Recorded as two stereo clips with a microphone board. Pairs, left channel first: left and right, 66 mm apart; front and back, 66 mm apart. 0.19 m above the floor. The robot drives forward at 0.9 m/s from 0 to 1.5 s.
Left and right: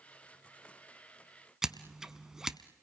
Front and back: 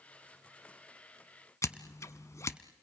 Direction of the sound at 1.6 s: 10° right.